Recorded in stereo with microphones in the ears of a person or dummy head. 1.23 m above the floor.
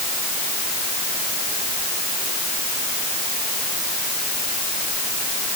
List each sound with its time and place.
Only background noise.